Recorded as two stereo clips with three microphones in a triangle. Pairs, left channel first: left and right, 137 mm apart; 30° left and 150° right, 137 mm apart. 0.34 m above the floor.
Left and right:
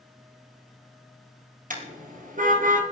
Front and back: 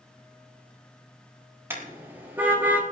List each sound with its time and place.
1.7 s a car horn: 75° right, 3.5 m; by 2.8 s 70° right, 2 m